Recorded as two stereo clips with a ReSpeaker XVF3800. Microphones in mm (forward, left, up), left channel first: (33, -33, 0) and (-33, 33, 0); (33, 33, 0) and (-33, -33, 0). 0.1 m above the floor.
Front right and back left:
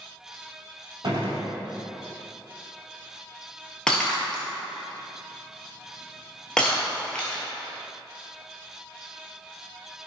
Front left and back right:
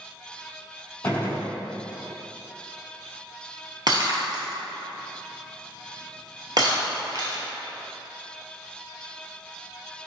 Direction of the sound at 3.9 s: 125° right.